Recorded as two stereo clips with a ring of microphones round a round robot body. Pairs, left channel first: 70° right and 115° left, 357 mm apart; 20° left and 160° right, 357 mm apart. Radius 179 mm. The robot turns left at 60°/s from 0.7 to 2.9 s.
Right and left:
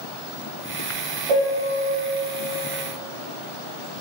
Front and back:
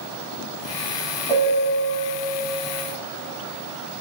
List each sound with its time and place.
1.3 s a piano: 95° left, 0.6 m; by 1.9 s 60° left, 0.6 m